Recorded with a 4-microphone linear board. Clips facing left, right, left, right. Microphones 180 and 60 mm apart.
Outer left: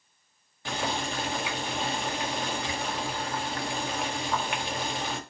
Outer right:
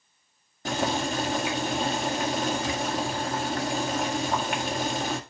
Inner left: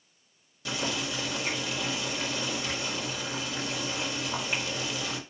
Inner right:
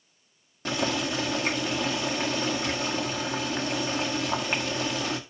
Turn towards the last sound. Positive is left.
turn(degrees=-45)  # may be behind; listen again after turning